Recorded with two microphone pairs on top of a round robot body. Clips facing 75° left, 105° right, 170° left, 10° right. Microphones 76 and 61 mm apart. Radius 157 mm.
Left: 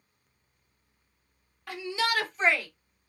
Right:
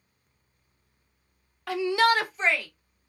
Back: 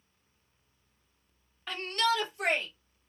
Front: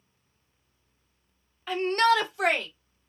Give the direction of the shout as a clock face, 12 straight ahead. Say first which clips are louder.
Right 8 dB, front 7 dB; 3 o'clock.